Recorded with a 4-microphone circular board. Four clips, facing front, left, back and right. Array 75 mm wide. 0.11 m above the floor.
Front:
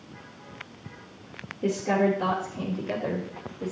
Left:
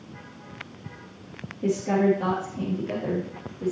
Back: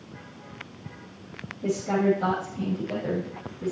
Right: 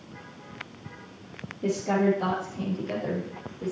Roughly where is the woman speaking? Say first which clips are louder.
Left 2 dB, even; ahead.